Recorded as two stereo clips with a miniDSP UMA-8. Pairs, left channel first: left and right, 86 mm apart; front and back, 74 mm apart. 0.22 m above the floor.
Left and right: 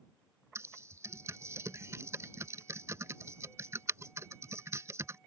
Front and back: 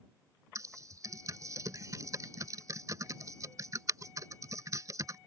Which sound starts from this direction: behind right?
Typing on a keyboard, at 0.6 s.